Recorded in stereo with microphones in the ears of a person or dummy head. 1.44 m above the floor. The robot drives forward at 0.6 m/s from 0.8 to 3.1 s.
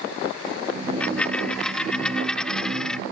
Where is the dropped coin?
10° left (ahead or behind); by 3.0 s 5° left (ahead or behind).